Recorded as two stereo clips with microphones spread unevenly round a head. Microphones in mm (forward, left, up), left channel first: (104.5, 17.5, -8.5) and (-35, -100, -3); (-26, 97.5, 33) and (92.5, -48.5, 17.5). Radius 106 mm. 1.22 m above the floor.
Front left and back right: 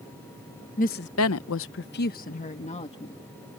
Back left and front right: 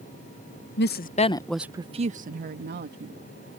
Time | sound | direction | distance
0.8 | a woman speaking | 100° left | ?